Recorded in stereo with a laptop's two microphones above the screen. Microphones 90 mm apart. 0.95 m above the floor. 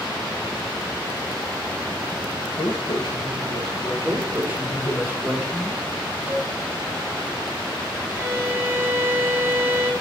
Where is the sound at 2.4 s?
55° left (ahead or behind), 1.1 m; by 4.9 s 40° left (ahead or behind), 3.5 m.